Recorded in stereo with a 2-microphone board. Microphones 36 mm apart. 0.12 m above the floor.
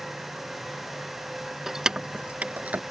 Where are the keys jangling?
15° right (ahead or behind); by 2.8 s 50° right (ahead or behind).